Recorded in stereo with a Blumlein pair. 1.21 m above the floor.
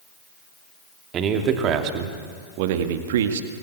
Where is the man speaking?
30° right, 3 m; by 3.5 s 65° right, 1.9 m.